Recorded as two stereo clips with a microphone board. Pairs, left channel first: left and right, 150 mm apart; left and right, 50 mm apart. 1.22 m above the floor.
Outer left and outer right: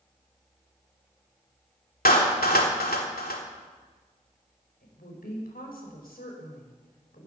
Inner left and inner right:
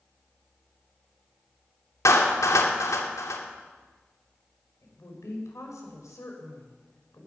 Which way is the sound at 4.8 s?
85° left.